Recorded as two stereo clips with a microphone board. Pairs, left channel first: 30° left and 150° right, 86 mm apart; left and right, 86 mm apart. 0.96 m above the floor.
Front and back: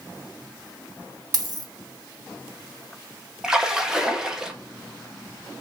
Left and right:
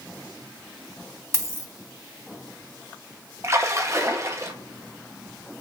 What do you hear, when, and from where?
1.3 s a dropped coin: 140° right, 0.8 m
3.4 s a splash: 75° right, 0.7 m